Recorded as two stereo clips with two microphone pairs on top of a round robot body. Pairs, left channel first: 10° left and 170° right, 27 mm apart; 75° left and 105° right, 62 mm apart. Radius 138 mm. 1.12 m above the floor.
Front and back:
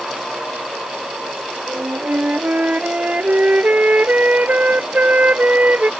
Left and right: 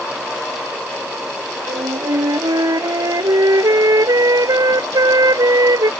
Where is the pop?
I don't hear a pop.